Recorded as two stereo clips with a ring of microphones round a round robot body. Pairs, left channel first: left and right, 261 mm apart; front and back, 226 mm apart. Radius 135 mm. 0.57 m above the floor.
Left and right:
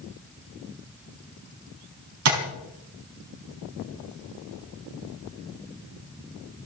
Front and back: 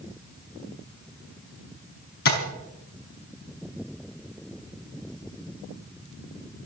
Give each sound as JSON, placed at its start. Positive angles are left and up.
{"t": 2.2, "sound": "tapping", "azimuth_deg": -55, "distance_m": 4.5}